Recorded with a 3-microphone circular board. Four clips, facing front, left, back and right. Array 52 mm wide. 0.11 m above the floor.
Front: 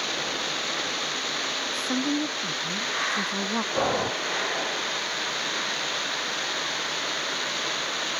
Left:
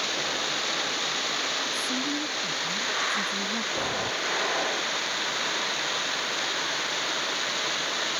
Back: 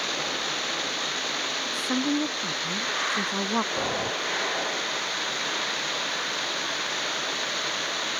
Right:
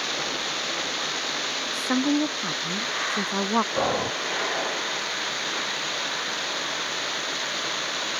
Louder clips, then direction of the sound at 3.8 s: Right 5 dB, front 3 dB; 45° right.